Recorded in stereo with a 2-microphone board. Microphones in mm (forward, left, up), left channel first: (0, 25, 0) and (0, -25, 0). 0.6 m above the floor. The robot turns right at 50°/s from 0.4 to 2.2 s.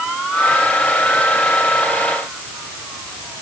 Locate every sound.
Only background noise.